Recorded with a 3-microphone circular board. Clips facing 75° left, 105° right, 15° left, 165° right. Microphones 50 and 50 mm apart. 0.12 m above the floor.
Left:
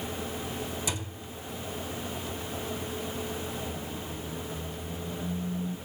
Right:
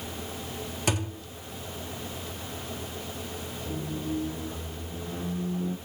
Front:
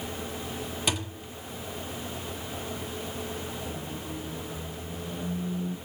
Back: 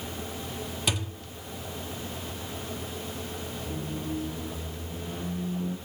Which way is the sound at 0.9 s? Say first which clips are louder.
Right 6 dB, even; 75° right.